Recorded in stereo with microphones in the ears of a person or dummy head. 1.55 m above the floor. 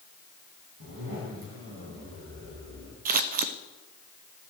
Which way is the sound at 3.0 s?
40° right (ahead or behind).